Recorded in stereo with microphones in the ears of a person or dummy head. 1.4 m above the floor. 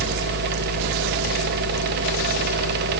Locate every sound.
0.0 s a machine running: 60° right (ahead or behind), 1.0 m